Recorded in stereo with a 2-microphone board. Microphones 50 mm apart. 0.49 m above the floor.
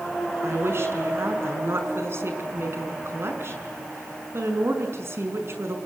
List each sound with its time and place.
0.4 s a woman speaking: 60° right (ahead or behind), 5.5 m